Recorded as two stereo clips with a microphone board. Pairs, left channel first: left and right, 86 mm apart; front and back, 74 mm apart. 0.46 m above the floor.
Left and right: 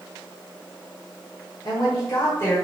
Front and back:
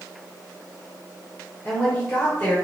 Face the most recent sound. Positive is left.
turn(degrees=45)